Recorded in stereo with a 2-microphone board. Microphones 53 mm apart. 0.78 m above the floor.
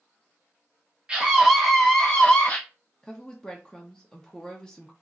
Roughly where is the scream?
Right.